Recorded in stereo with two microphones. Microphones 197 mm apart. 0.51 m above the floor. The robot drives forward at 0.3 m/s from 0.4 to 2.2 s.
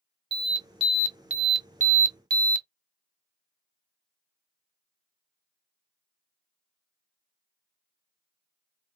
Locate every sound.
0.3 s an alarm: 25° right (ahead or behind), 0.9 m; by 2.7 s 45° right (ahead or behind), 0.6 m